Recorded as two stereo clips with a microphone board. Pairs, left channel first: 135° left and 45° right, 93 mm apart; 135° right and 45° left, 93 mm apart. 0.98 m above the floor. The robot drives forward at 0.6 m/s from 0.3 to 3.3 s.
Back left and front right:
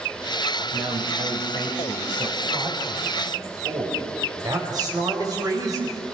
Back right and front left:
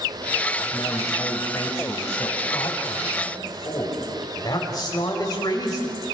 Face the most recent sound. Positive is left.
turn(degrees=-90)